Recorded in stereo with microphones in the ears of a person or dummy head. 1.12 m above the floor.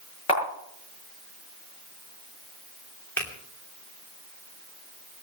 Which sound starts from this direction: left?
A camera shutter, at 0.3 s.